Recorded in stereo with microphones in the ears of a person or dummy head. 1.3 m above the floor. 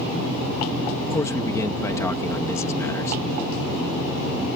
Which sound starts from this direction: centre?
A man speaking, at 1.1 s.